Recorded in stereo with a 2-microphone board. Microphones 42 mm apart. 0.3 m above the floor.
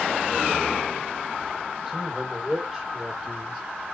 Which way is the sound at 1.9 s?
Centre (ahead or behind).